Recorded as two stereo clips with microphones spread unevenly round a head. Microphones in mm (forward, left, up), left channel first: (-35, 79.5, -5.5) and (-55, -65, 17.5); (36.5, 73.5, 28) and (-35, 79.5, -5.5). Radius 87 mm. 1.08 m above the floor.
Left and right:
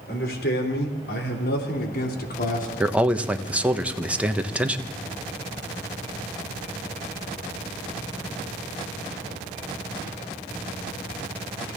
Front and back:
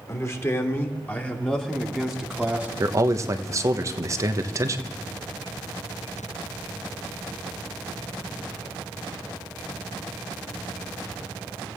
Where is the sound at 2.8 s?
175° left, 1.1 m.